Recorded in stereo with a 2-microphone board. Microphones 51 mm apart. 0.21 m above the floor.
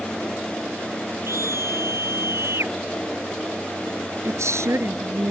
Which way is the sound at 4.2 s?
70° right (ahead or behind).